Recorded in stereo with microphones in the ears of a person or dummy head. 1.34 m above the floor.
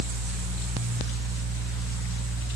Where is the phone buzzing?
I don't hear a phone buzzing.